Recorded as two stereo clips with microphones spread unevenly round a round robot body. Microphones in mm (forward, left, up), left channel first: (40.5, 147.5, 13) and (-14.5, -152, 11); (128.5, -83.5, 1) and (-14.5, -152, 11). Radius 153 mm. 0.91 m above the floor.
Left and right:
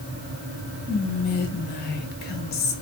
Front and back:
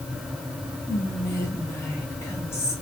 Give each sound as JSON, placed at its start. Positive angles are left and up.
{"t": 0.9, "sound": "whispering", "azimuth_deg": 75, "distance_m": 0.9}